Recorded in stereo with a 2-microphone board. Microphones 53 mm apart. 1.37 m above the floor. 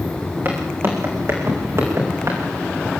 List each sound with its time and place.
0.5 s footsteps: 45° right (ahead or behind), 6.5 m; by 2.4 s 60° right (ahead or behind), 6.5 m